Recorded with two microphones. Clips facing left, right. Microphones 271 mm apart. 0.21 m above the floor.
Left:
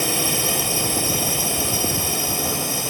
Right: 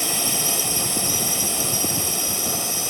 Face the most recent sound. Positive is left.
turn(degrees=60)  # may be behind; listen again after turning